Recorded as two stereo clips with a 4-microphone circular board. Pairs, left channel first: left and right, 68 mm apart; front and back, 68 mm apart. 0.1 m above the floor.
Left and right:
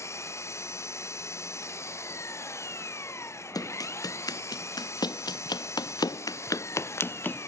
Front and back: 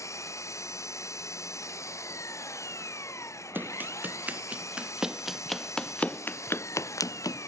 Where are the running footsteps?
120° left; by 7.5 s 20° left.